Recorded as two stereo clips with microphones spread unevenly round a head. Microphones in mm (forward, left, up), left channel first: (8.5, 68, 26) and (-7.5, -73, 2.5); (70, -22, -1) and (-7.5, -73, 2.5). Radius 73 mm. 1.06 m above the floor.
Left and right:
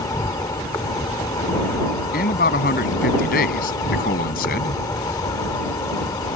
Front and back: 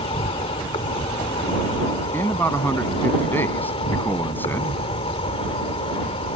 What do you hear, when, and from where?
0.0 s an insect: 20° left
2.1 s a man speaking: 110° left